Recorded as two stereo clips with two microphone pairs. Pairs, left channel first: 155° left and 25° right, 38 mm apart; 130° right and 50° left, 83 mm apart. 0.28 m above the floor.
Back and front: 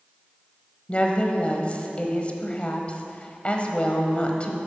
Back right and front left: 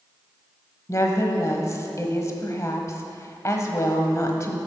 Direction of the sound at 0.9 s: 160° right.